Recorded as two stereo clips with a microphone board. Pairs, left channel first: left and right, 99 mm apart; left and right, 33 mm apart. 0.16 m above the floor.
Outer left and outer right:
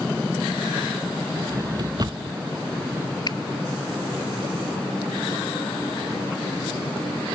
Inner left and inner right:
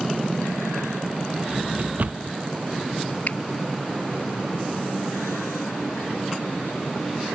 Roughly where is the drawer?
Right.